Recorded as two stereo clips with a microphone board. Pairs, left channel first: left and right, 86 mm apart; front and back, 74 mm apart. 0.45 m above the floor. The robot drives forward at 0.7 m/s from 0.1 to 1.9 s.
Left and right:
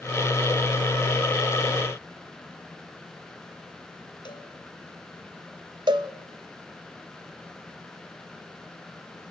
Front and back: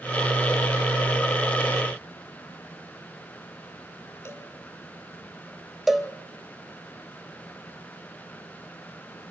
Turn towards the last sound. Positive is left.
turn(degrees=-90)